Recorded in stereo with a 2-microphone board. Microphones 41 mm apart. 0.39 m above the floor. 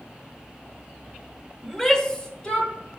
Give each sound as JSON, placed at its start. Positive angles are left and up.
{"t": 1.6, "sound": "a shout", "side_deg": 5, "distance_m": 1.1}